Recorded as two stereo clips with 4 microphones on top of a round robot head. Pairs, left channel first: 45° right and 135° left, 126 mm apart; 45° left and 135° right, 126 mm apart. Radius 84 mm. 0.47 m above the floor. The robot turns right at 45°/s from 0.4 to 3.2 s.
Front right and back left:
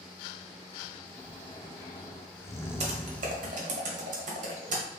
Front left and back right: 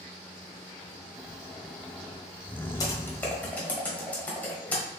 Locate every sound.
1.1 s snoring: 75° right, 0.8 m; by 3.6 s 15° left, 0.8 m
2.8 s typing on a keyboard: 105° left, 1.3 m; by 4.8 s 125° left, 1.3 m